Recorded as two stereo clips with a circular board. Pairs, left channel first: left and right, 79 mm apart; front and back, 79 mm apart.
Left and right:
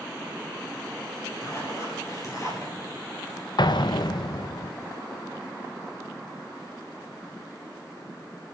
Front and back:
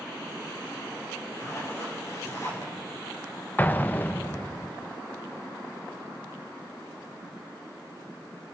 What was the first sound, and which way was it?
A zipper, 45° left.